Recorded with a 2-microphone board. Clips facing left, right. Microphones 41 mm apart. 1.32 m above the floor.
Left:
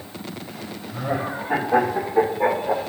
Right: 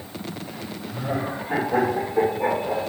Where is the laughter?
20° left (ahead or behind), 2.5 m; by 2.8 s 35° left (ahead or behind), 1.3 m.